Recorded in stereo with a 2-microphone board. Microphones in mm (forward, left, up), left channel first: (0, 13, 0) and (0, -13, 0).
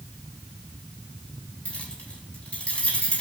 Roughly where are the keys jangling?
Left.